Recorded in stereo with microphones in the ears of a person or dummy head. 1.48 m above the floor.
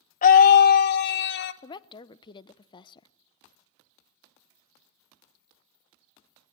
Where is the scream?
45° left (ahead or behind), 1.0 m; by 1.5 s 65° left (ahead or behind), 1.7 m.